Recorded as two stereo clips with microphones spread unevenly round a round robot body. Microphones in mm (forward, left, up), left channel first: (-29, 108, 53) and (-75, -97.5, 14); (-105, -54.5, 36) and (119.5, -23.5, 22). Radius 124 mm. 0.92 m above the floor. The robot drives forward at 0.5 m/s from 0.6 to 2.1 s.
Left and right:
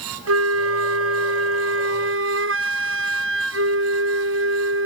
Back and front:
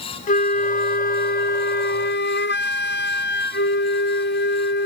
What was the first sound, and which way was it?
A flute, 115° right.